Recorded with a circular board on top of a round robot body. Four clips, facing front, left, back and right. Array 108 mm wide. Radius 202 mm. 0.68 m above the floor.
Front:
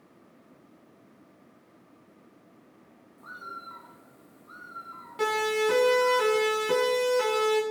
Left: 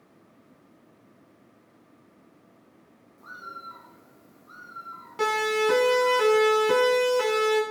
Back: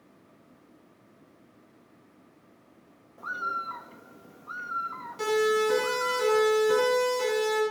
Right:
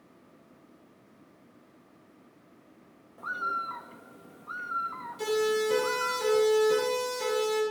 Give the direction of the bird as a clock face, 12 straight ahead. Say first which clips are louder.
Right 9 dB, back 10 dB; 5 o'clock.